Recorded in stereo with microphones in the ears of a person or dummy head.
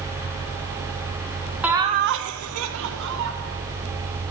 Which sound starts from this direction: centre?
Laughter, at 1.6 s.